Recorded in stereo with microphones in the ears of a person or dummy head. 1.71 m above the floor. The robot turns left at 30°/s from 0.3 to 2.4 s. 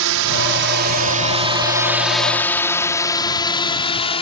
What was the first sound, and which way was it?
A drone, 75° right (ahead or behind).